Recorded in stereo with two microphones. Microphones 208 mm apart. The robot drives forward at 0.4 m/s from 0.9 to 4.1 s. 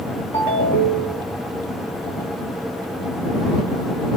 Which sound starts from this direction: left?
A ringtone, at 0.3 s.